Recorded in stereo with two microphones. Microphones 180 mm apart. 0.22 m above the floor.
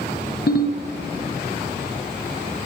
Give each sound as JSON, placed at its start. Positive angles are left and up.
{"t": 0.5, "sound": "a ringtone", "side_deg": 65, "distance_m": 1.7}